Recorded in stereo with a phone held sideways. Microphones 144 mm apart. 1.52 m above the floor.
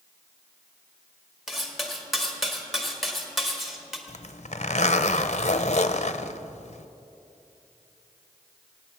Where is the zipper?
50° left (ahead or behind), 0.6 m.